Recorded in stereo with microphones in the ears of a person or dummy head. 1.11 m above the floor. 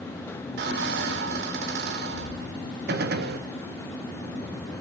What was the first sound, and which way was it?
A squeak, 70° right (ahead or behind).